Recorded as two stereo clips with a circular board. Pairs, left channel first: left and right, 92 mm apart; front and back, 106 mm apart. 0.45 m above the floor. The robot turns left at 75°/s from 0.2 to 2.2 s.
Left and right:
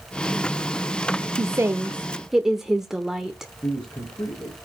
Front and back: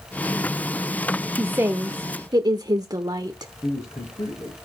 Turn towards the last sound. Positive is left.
turn(degrees=45)